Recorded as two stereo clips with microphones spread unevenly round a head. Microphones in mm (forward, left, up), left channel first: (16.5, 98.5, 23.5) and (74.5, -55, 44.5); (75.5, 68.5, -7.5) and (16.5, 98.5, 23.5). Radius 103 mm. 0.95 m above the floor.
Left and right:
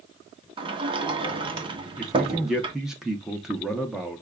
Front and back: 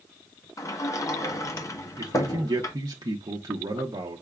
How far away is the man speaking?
About 0.6 m.